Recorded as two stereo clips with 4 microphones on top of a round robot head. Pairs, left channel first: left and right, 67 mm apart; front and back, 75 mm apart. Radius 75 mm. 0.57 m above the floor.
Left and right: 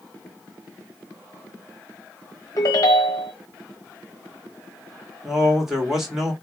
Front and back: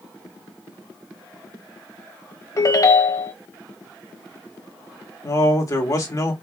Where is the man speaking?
10° right, 1.9 m.